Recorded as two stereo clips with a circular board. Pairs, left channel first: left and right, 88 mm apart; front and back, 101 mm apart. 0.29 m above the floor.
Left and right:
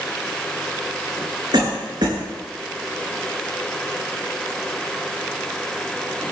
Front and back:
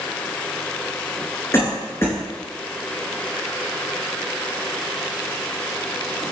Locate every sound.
1.5 s a cough: 60° right, 3.5 m